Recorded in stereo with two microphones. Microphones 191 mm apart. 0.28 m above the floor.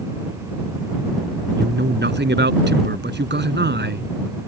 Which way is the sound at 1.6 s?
65° right (ahead or behind).